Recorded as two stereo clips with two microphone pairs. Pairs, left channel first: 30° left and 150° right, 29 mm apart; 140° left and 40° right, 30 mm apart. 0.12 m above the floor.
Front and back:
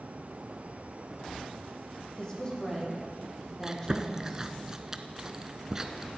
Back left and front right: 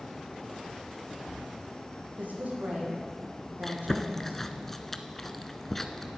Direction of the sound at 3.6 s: 165° right.